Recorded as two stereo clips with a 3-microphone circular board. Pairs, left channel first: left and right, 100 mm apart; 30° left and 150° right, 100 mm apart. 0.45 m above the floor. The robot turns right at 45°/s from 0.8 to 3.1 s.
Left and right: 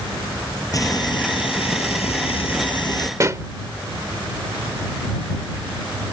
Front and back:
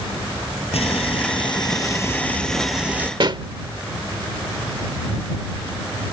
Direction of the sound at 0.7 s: 35° left.